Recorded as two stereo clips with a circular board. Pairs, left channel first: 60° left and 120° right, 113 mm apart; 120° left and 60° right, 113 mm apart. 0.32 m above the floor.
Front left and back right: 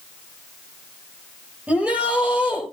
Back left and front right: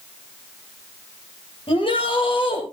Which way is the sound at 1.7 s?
160° left.